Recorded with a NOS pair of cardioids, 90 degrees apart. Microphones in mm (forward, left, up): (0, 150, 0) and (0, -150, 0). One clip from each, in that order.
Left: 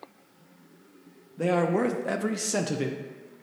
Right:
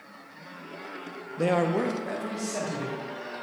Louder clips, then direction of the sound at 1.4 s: Even; 15° right.